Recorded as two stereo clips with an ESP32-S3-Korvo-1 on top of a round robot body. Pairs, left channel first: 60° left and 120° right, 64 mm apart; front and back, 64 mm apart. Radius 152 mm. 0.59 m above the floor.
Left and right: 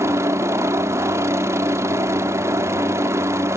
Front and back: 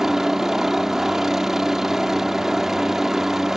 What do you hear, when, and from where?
0.0 s a helicopter: 100° right